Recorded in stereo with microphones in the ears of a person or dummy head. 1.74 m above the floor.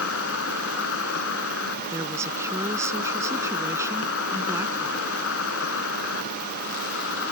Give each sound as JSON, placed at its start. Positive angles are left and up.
{"t": 0.0, "sound": "an insect", "side_deg": 75}
{"t": 1.9, "sound": "a woman speaking", "side_deg": -15}